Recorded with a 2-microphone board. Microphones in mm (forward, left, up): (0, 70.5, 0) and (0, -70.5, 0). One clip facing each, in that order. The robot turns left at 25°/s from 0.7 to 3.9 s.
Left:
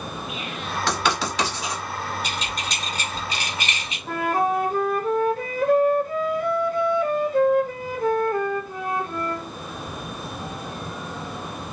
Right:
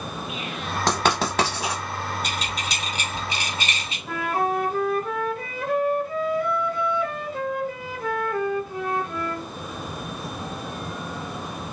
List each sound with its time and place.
0.9 s writing: 40° right (ahead or behind), 1.2 m; by 1.8 s 65° right (ahead or behind), 1.2 m
2.2 s keys jangling: 5° left (ahead or behind), 1.9 m; by 4.0 s 40° right (ahead or behind), 1.9 m
4.1 s a flute: 45° left (ahead or behind), 1.0 m